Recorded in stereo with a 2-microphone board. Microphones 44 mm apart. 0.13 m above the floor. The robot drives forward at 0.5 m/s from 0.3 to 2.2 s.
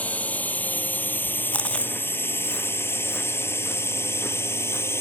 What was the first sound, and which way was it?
A drone, 30° left (ahead or behind).